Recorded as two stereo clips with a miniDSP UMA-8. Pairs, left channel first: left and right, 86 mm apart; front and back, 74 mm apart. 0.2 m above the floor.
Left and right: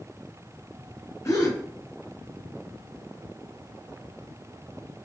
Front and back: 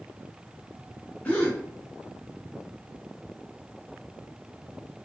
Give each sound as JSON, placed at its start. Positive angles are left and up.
{"t": 1.2, "sound": "a gasp", "azimuth_deg": 60, "distance_m": 1.6}